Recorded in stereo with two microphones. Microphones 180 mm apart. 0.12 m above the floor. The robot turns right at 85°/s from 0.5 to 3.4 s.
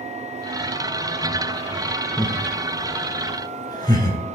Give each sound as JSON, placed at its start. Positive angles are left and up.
{"t": 2.2, "sound": "laughter", "side_deg": 15, "distance_m": 2.0}